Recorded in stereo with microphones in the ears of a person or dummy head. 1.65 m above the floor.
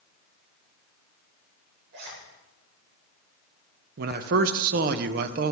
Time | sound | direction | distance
1.9 | a zipper | 65° right (ahead or behind) | 3 m
4.0 | a man speaking | 50° right (ahead or behind) | 0.7 m